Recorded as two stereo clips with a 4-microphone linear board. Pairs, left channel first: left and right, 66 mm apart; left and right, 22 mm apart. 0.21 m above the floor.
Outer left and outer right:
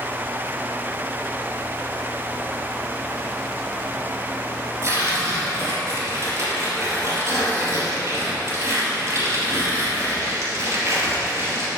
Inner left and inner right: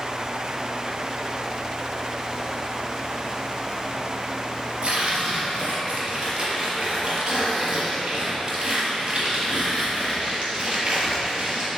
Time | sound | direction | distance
4.8 | tearing paper | 40° right (ahead or behind) | 3 m